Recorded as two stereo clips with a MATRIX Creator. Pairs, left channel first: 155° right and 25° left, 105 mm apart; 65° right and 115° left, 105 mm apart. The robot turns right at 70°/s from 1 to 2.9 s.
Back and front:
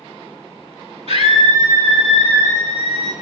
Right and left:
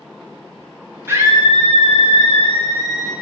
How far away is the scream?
About 8.5 m.